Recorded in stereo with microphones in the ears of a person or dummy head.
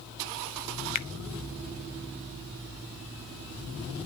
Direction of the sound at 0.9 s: 40° left (ahead or behind).